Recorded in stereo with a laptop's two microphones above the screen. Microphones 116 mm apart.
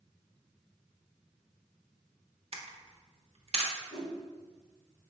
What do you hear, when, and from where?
2.5 s a camera shutter: 60° right (ahead or behind), 0.6 m
3.9 s a whoosh: 30° left (ahead or behind), 1.5 m